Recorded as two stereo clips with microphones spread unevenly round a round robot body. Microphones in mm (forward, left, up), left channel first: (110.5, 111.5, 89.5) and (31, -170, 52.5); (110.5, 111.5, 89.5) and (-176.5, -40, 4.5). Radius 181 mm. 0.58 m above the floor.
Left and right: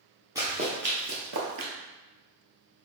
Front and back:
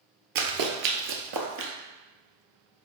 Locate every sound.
0.3 s running footsteps: 165° left, 0.7 m; by 1.7 s 110° right, 0.8 m